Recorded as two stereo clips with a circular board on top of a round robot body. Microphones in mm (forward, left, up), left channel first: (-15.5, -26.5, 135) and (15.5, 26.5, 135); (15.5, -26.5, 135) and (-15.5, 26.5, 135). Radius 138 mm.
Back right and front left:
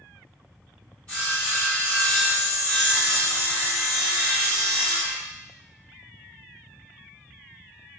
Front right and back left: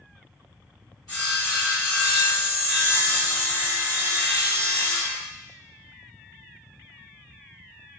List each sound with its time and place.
1.1 s sawing: 55° right, 1.5 m